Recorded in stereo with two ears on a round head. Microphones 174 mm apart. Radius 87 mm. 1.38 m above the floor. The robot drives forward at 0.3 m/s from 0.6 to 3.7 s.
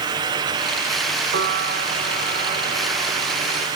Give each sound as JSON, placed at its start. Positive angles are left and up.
{"t": 1.3, "sound": "a piano", "side_deg": -65}